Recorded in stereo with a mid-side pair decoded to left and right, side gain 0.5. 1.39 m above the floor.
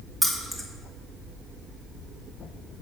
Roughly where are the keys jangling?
Ahead.